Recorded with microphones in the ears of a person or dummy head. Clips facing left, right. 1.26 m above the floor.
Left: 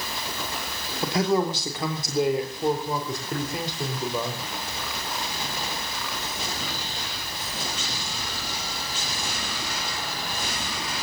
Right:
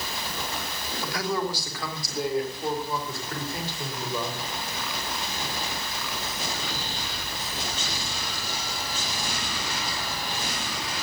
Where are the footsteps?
No footsteps in this recording.